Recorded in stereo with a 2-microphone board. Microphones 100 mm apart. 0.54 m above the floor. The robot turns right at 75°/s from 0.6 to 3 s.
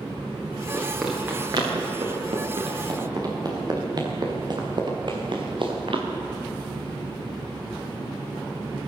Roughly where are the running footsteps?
Centre.